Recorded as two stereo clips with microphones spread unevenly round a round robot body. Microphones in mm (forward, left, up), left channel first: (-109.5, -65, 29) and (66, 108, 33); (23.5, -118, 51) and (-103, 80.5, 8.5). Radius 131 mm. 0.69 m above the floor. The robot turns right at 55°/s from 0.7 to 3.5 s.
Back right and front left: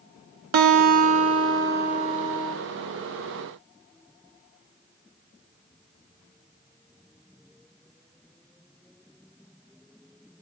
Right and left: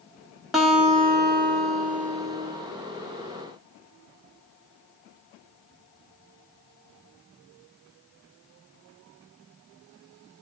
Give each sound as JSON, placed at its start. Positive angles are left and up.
{"t": 0.5, "sound": "a guitar", "azimuth_deg": 35, "distance_m": 1.2}